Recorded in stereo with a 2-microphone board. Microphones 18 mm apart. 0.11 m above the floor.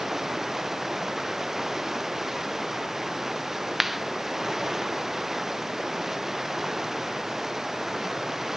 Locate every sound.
0.0 s running water: 20° right (ahead or behind)
3.8 s a clap: 10° right (ahead or behind)